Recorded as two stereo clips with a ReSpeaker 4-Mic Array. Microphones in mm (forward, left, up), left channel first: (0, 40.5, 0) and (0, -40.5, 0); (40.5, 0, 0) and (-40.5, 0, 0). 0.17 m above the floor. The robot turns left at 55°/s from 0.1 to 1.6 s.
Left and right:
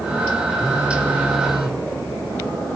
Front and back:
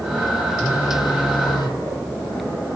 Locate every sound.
0.6 s a phone buzzing: 45° left, 0.8 m; by 1.8 s 10° right, 0.8 m